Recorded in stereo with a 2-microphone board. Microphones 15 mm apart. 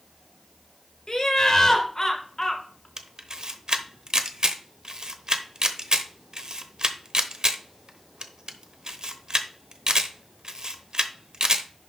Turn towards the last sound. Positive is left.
turn(degrees=-50)  # may be behind; listen again after turning